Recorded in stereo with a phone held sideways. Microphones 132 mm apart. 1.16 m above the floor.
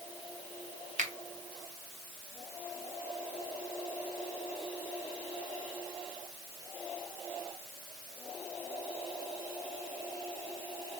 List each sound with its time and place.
1.0 s a finger snap: 65° right (ahead or behind), 0.8 m